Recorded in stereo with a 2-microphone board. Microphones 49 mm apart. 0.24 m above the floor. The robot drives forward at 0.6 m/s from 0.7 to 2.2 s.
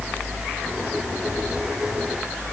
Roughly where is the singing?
No singing in this recording.